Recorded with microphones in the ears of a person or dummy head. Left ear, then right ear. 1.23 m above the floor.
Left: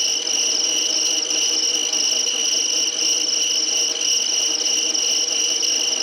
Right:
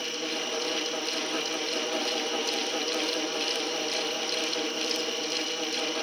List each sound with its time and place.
0.0 s an insect: 55° left (ahead or behind), 0.7 m